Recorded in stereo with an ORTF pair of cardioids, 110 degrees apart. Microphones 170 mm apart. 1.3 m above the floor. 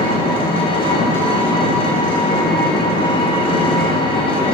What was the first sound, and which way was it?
An engine running, 35° left.